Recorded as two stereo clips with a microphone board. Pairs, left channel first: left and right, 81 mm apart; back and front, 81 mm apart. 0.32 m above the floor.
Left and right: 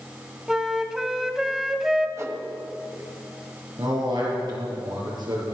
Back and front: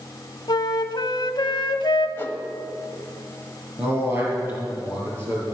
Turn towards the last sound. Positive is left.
turn(degrees=-60)